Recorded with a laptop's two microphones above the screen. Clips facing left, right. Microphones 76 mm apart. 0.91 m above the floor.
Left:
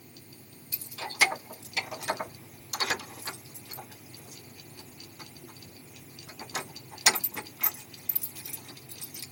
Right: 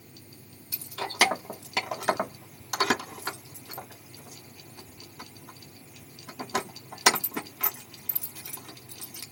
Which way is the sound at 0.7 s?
80° right.